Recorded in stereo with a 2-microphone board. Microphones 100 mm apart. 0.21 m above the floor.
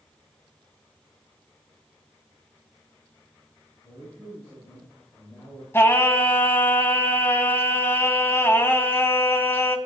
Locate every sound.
3.8 s a man speaking: 35° left (ahead or behind), 5.5 m; by 5.6 s 15° left (ahead or behind), 5 m
5.7 s singing: 25° left (ahead or behind), 0.9 m